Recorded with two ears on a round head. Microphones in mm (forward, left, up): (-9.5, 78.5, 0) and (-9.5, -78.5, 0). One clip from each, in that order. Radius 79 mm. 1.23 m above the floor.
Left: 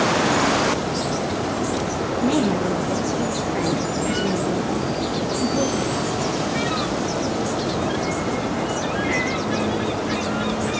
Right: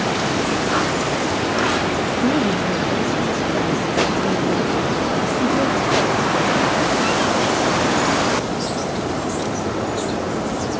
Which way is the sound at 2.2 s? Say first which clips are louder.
Left 1 dB; 15° left (ahead or behind).